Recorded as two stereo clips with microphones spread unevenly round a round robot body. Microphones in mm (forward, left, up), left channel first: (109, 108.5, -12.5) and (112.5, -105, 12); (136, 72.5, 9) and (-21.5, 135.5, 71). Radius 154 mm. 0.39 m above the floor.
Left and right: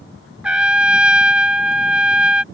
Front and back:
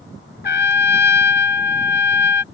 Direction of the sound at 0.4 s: 5° right.